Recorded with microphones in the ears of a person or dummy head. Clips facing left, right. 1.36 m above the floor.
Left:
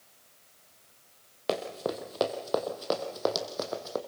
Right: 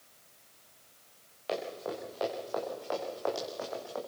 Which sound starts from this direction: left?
Running footsteps, at 1.5 s.